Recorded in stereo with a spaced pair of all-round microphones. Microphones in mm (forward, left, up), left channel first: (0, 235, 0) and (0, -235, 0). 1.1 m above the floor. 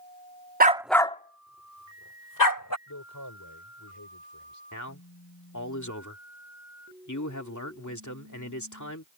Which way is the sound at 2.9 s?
45° left (ahead or behind).